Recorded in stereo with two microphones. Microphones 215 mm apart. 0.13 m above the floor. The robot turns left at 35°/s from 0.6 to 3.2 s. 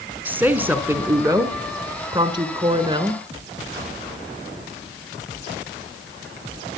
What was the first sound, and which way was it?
A woman speaking, 10° right (ahead or behind).